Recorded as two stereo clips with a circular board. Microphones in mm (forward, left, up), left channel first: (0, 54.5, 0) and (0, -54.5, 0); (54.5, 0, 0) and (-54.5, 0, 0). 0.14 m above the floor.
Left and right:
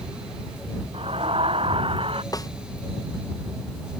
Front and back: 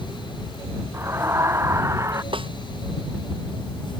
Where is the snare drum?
145° left.